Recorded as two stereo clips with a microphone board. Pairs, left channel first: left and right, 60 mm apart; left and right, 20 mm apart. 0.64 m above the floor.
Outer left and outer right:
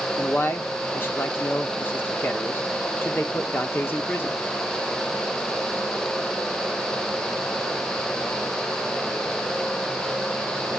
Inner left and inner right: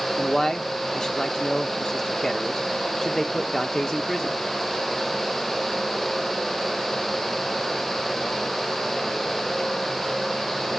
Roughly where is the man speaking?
Left.